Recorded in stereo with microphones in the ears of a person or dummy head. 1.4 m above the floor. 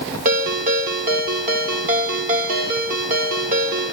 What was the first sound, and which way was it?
A ringtone, 45° right (ahead or behind).